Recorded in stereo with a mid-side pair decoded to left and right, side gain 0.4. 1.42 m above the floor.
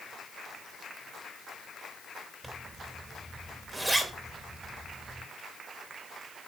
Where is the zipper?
15° right, 2.5 m.